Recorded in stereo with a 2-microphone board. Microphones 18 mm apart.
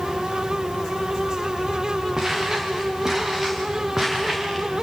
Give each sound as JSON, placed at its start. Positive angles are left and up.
{"t": 2.2, "sound": "footsteps", "side_deg": -30, "distance_m": 5.5}